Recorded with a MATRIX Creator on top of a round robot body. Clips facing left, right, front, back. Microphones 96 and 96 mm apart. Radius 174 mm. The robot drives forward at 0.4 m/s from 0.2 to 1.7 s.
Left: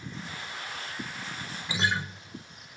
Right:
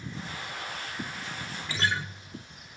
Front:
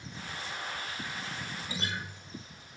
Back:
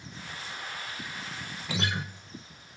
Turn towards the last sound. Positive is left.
turn(degrees=165)